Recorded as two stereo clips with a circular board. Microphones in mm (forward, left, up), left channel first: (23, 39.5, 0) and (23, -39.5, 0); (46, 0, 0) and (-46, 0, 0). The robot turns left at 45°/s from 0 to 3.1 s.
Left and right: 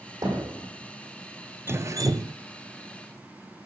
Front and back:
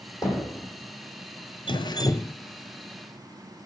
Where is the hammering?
50° right, 10 m; by 0.7 s 70° right, 10 m.